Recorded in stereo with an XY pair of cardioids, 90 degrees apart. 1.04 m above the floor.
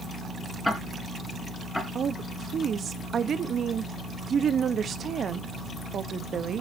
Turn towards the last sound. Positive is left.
turn(degrees=-55)